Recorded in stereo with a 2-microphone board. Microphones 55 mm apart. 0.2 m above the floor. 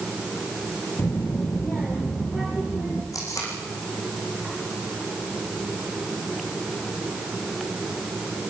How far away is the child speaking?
About 2 m.